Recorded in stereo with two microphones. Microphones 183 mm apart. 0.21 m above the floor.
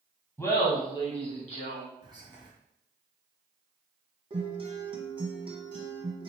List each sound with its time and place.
0.4 s laughter: 15° left (ahead or behind), 1.2 m; by 1.9 s 45° left (ahead or behind), 1.7 m
2.0 s whispering: 25° right (ahead or behind), 1.0 m
4.3 s a guitar: 30° right (ahead or behind), 1.1 m